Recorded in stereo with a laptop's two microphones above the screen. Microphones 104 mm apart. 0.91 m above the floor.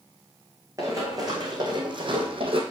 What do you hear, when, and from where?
0.8 s running footsteps: 30° right (ahead or behind), 2.5 m; by 2.6 s 60° right (ahead or behind), 1.8 m